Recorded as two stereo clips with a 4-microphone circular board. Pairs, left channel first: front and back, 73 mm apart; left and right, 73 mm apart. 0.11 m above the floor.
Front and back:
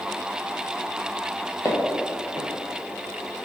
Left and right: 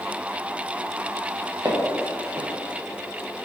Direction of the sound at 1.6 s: 50° right.